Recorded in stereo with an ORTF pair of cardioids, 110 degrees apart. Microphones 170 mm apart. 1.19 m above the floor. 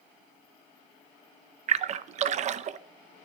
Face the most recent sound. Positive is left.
turn(degrees=-45)